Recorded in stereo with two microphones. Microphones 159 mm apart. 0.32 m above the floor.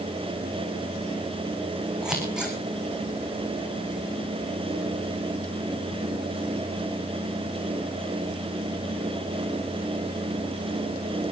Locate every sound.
2.0 s scissors: 5° right (ahead or behind), 3.5 m